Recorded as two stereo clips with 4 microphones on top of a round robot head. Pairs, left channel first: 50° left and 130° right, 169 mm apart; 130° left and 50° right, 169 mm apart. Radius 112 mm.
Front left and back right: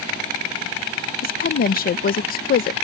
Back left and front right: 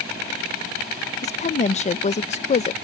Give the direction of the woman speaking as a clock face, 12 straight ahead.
9 o'clock.